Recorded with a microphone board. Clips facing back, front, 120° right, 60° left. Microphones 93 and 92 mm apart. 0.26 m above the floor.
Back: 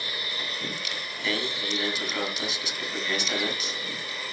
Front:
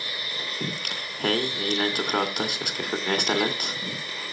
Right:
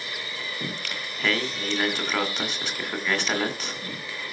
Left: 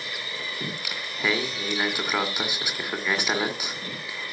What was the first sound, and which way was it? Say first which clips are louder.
Singing: front 2 dB, even; 20° right.